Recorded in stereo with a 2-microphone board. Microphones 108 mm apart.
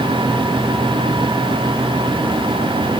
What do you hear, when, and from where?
Only background noise.